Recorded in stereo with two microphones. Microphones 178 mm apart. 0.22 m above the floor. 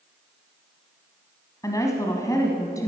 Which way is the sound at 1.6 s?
20° left (ahead or behind).